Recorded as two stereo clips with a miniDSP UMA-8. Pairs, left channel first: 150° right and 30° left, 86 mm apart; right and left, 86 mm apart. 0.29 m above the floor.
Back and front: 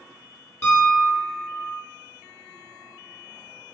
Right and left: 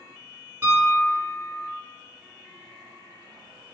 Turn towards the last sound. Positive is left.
turn(degrees=155)